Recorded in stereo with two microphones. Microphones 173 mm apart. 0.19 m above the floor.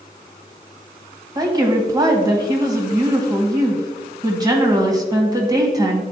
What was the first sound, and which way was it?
A woman speaking, 20° right (ahead or behind).